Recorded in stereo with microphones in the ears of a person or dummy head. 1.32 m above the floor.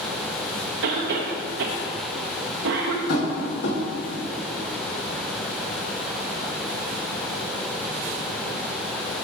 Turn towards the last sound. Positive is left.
turn(degrees=75)  # may be behind; listen again after turning